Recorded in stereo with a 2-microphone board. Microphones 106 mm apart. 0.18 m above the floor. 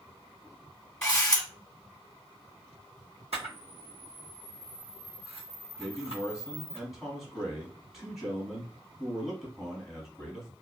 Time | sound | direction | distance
1.0 | a camera shutter | 10° left (ahead or behind) | 1.4 m
3.3 | a camera shutter | 75° right (ahead or behind) | 1.5 m
5.8 | a man speaking | 5° right (ahead or behind) | 1.2 m